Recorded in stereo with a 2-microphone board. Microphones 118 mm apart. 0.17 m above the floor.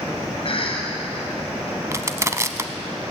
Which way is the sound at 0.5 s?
50° left (ahead or behind).